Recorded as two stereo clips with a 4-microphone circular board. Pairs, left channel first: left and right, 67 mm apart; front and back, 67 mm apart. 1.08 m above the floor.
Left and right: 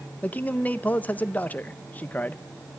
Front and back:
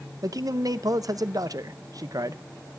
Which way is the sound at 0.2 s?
155° left.